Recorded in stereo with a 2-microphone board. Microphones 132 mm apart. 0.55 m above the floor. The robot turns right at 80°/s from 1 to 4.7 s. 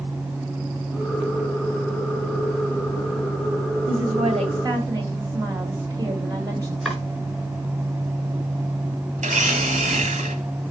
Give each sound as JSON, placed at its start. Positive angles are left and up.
{"t": 3.9, "sound": "a woman speaking", "azimuth_deg": -100, "distance_m": 2.0}
{"t": 6.8, "sound": "chopping", "side_deg": 0, "distance_m": 5.5}
{"t": 9.2, "sound": "a blender", "side_deg": -75, "distance_m": 1.4}